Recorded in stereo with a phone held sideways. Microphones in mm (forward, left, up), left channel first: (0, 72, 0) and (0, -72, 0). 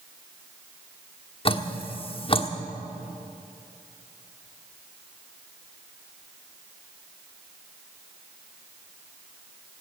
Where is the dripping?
40° left (ahead or behind), 1.2 m.